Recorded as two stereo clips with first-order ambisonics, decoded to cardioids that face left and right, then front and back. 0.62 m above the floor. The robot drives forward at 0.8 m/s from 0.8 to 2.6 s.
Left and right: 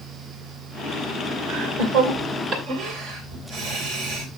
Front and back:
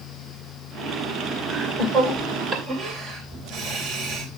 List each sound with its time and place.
1.5 s laughter: 115° right, 2 m; by 4.3 s 130° right, 2.5 m